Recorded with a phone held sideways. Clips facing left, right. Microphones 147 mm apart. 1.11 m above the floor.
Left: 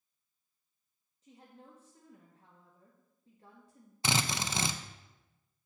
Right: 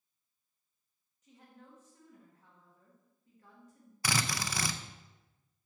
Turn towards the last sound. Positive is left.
turn(degrees=20)  # may be behind; listen again after turning